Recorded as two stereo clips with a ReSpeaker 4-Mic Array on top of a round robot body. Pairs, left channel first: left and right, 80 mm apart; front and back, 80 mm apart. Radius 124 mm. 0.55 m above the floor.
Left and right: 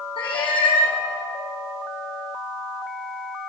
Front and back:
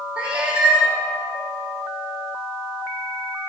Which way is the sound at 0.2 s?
100° left.